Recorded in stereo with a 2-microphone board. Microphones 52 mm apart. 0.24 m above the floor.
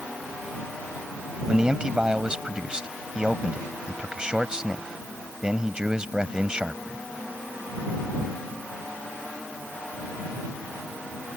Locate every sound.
1.5 s a man speaking: 15° right (ahead or behind)